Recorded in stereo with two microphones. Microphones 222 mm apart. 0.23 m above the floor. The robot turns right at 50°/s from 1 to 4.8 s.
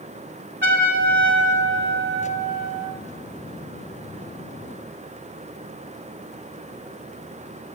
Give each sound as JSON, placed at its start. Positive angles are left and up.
{"t": 0.6, "sound": "a trumpet", "azimuth_deg": -115, "distance_m": 1.2}